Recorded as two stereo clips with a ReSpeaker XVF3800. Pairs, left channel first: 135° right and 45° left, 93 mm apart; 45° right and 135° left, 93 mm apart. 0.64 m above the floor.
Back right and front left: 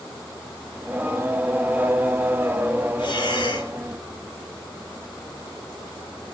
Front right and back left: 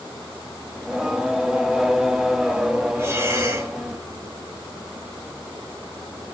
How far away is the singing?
About 0.7 m.